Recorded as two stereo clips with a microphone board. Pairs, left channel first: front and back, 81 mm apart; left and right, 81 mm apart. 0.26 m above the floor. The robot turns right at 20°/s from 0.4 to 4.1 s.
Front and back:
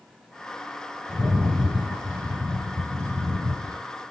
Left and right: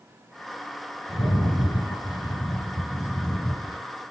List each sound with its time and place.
1.1 s a rattle: 95° left, 3.5 m; by 3.8 s 150° left, 3.5 m